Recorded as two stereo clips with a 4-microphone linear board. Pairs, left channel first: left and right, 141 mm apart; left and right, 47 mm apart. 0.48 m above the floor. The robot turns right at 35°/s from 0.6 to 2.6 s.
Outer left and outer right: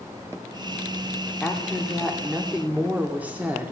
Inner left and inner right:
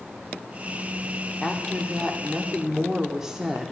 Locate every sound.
1.4 s a woman speaking: 5° left (ahead or behind), 0.7 m; by 3.7 s 10° right (ahead or behind), 0.7 m